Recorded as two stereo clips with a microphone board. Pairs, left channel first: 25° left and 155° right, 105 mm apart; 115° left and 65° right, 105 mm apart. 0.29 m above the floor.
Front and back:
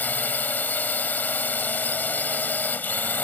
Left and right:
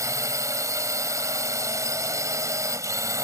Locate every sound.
0.0 s a drone: 40° right